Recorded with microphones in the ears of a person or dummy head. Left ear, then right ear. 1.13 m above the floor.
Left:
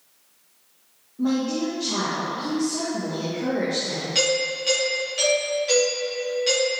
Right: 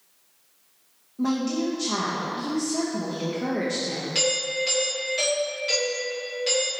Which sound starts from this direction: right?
A woman speaking, at 1.2 s.